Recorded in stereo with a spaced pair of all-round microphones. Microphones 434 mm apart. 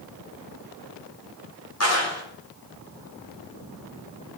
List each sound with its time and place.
1.8 s a clap: 35° left (ahead or behind), 3.5 m